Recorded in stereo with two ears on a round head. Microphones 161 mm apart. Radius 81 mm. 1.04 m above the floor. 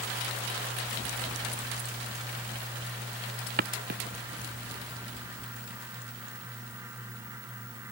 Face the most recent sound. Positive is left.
turn(degrees=-60)  # may be behind; listen again after turning